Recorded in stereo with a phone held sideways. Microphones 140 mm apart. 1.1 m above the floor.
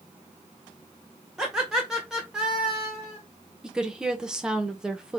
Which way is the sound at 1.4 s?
5° right (ahead or behind).